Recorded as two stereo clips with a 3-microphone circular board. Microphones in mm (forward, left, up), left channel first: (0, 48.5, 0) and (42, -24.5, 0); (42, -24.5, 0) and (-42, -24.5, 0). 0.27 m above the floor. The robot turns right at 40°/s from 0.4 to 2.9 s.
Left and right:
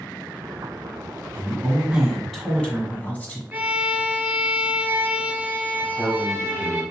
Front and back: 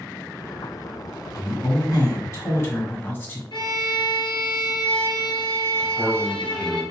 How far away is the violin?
About 1.0 m.